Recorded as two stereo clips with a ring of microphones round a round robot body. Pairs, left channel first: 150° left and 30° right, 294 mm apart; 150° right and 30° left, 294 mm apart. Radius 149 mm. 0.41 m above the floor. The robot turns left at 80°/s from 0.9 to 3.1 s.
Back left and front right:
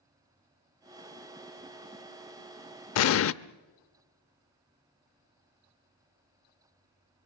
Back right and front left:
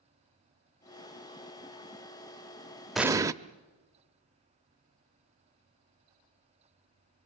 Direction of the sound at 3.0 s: 120° left.